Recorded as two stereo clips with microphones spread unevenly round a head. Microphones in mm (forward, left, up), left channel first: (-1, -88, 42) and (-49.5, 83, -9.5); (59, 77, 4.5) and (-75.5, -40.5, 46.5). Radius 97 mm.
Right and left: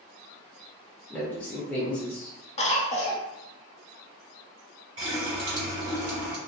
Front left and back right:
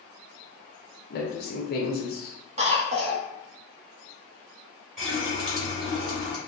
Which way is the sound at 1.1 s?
15° left.